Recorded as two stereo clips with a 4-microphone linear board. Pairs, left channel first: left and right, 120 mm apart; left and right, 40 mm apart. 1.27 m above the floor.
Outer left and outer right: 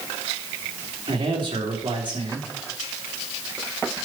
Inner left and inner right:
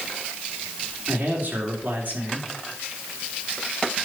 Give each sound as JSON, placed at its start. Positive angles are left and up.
{"t": 1.1, "sound": "a man speaking", "side_deg": -40, "distance_m": 3.5}